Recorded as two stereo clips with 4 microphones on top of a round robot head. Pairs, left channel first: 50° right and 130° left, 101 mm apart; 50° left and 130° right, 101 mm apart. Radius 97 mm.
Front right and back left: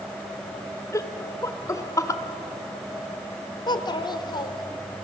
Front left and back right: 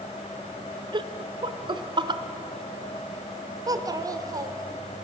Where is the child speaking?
85° right, 1.6 m.